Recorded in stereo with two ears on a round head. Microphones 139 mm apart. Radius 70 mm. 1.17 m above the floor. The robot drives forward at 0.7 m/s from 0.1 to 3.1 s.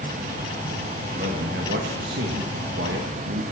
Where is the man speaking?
55° right (ahead or behind), 1.7 m; by 3.5 s 70° right (ahead or behind), 1.5 m.